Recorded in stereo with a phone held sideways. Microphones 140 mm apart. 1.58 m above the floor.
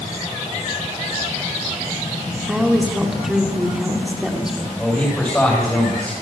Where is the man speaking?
10° left (ahead or behind), 10 m.